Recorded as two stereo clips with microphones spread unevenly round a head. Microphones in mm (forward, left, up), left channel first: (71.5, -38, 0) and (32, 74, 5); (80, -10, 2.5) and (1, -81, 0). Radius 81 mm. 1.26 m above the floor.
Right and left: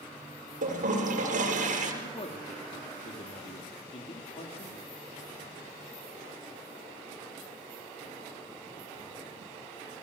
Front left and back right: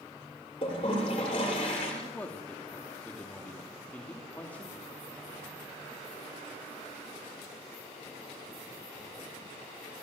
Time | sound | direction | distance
0.6 | a toilet flushing | 100° left | 7.5 m
2.0 | a man speaking | 35° right | 2.5 m